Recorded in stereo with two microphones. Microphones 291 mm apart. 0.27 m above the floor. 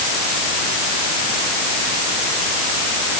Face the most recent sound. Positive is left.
No sound to turn to.